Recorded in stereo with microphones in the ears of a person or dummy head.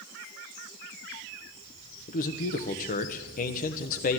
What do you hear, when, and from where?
2.1 s a man speaking: 45° left (ahead or behind), 1.2 m